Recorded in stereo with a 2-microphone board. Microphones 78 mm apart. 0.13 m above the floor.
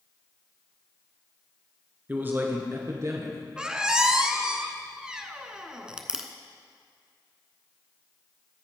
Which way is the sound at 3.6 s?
10° right (ahead or behind).